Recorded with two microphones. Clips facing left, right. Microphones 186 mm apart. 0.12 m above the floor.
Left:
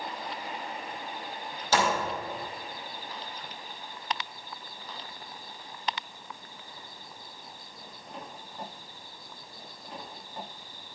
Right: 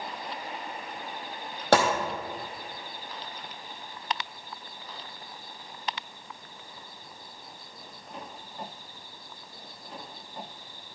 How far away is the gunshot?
About 1.7 m.